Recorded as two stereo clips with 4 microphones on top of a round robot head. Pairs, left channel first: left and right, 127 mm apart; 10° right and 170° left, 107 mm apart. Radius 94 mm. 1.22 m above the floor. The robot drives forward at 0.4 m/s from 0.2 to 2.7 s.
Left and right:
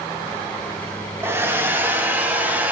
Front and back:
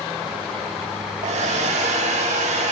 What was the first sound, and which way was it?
A hair dryer, 160° right.